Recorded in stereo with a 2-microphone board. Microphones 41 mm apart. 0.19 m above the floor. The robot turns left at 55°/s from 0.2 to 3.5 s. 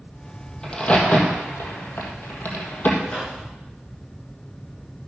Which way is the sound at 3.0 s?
10° left (ahead or behind).